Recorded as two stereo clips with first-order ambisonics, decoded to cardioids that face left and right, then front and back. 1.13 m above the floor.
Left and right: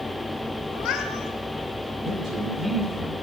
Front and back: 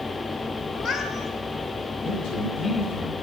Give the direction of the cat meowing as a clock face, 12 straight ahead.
10 o'clock.